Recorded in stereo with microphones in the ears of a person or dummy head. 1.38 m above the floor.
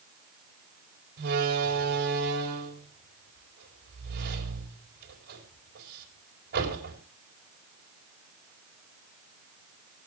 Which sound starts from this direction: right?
A door slam, at 1.2 s.